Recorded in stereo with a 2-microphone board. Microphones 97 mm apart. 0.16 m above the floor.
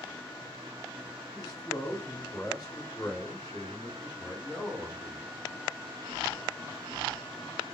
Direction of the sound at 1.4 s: 40° left (ahead or behind).